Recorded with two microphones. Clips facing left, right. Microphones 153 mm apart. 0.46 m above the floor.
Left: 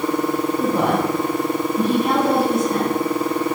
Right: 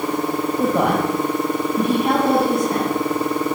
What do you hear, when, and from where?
0.6 s a woman speaking: 60° right (ahead or behind), 2.5 m